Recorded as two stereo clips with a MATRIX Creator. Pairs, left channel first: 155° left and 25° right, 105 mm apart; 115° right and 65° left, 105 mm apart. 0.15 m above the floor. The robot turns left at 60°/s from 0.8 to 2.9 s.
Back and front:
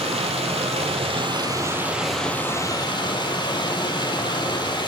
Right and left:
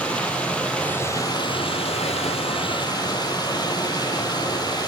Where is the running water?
35° right, 0.7 m; by 4.9 s 160° right, 0.7 m.